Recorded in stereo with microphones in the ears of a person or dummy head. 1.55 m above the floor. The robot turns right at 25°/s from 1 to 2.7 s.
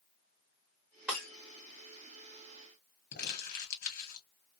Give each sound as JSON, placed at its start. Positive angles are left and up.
{"t": 1.1, "sound": "breaking glass", "side_deg": 0, "distance_m": 1.9}
{"t": 3.1, "sound": "crumpling", "side_deg": 65, "distance_m": 1.5}